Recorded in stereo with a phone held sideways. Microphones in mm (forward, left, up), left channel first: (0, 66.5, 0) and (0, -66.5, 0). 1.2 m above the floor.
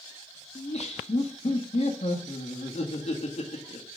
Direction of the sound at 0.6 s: 55° left (ahead or behind).